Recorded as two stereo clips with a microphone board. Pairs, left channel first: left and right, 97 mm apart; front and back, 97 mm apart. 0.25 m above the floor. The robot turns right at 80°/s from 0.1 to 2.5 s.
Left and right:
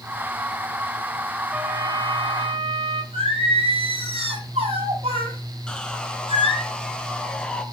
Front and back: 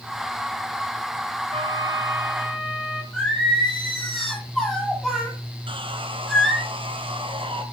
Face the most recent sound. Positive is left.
turn(degrees=170)